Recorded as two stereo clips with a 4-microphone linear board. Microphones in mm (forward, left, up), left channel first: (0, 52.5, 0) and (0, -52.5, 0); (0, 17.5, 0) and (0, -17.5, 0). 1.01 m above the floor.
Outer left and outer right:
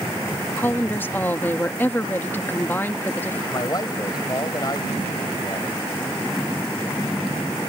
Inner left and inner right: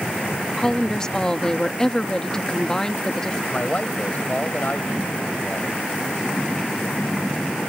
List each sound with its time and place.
0.6 s a woman speaking: 20° left (ahead or behind)
3.5 s a man speaking: 40° left (ahead or behind)